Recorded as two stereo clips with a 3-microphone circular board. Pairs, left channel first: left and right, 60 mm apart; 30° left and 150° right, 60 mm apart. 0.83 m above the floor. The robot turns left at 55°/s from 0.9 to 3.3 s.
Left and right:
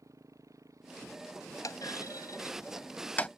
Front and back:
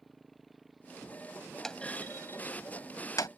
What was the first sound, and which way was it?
A motorcycle, 60° right.